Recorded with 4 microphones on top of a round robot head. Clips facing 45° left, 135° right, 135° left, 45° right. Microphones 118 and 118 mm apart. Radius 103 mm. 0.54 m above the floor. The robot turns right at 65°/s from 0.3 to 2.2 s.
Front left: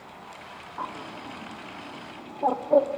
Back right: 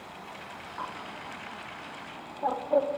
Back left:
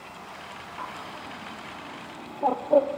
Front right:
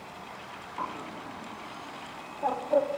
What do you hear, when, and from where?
0.8 s a bird: 5° right, 1.7 m; by 3.0 s 85° left, 1.7 m